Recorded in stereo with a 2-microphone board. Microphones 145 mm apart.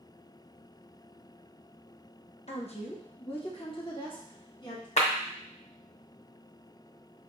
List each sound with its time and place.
2.5 s a woman speaking: 50° left (ahead or behind), 0.7 m; by 4.9 s 35° left (ahead or behind), 2 m
5.0 s a clap: 55° left (ahead or behind), 0.8 m